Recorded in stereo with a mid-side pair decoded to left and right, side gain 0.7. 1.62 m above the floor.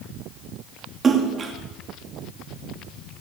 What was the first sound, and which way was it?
A splash, 30° right.